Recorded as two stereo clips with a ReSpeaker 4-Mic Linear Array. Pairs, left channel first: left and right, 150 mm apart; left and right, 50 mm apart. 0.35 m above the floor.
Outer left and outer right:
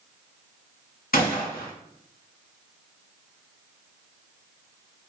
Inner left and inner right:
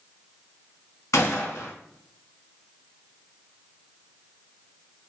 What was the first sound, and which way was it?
A gunshot, 75° left (ahead or behind).